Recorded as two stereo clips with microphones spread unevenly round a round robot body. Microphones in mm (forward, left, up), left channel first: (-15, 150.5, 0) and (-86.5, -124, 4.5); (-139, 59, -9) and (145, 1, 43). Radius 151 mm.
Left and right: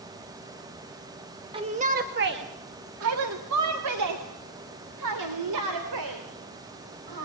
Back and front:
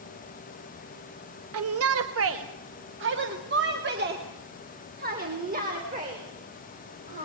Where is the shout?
35° right, 1.2 m; by 7.2 s 80° right, 4.5 m.